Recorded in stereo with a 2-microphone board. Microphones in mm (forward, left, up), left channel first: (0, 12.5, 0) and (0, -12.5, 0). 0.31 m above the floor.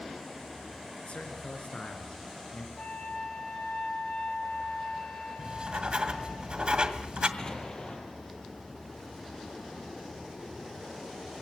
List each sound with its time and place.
1.1 s a man speaking: 55° left (ahead or behind), 4 m
2.8 s a flute: 65° left (ahead or behind), 7 m
5.4 s writing: 40° right (ahead or behind), 2 m
7.4 s an explosion: 30° left (ahead or behind), 6 m